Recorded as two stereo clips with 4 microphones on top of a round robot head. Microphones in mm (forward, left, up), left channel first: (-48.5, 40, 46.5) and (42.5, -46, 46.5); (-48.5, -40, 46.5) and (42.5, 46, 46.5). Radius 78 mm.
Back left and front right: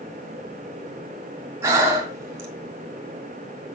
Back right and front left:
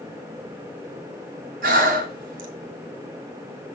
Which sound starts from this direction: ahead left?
Breathing, at 1.6 s.